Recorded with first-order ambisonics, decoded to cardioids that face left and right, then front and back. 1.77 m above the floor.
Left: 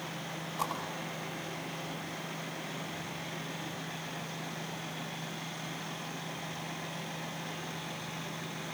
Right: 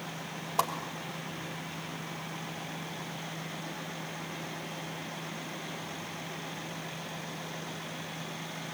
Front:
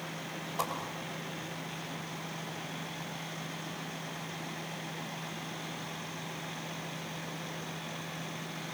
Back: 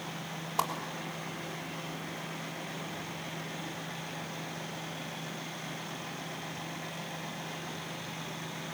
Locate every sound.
0.6 s a whoosh: 120° right, 3 m